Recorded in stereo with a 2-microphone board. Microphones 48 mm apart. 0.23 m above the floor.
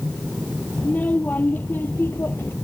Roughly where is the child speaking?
Left.